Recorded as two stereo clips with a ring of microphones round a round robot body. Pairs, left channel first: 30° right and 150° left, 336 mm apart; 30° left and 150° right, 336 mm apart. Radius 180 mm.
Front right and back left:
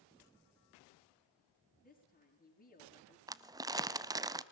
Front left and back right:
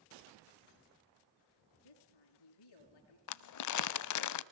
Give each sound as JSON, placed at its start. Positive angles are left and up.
{"t": 1.8, "sound": "a woman speaking", "azimuth_deg": 35, "distance_m": 6.0}
{"t": 3.3, "sound": "crumpling", "azimuth_deg": 70, "distance_m": 0.8}